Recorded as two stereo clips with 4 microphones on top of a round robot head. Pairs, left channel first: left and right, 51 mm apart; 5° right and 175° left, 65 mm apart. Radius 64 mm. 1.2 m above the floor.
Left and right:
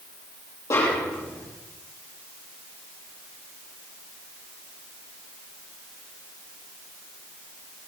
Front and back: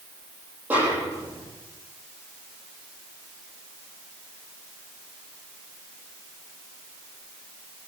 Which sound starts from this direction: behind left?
A snare drum, at 0.7 s.